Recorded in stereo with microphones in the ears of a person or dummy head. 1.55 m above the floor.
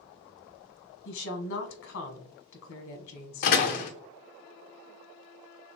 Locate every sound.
1.1 s a woman speaking: 65° left (ahead or behind), 1.2 m
3.4 s a door slam: 40° left (ahead or behind), 0.6 m